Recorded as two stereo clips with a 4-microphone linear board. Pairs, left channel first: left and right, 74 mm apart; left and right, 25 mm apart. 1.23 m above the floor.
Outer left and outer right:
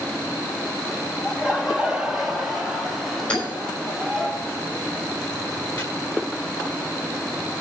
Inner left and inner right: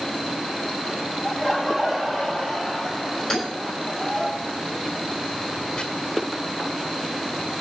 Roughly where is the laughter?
Centre.